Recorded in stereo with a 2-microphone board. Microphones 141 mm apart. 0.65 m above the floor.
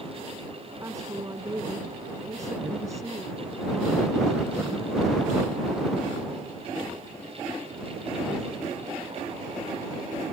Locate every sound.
0.8 s a woman speaking: 20° right (ahead or behind)